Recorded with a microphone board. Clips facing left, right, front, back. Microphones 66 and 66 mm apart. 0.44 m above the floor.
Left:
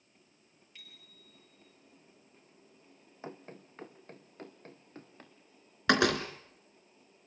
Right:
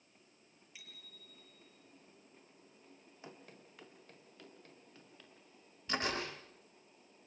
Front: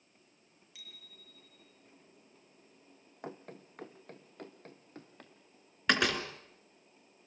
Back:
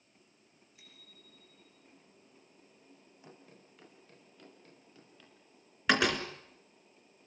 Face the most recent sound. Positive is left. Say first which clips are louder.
# left 11 dB, back 1 dB
turn(degrees=95)